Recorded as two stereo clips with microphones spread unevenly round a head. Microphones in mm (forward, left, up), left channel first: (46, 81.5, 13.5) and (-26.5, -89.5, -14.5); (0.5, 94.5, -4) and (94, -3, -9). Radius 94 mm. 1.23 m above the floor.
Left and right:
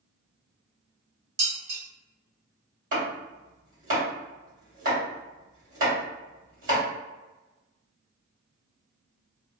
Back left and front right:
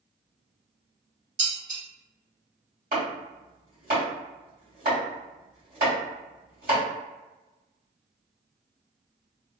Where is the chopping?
90° right, 1.9 m.